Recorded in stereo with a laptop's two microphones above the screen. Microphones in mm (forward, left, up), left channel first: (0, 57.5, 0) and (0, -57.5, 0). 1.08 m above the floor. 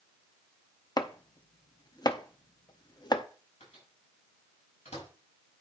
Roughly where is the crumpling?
I don't hear crumpling.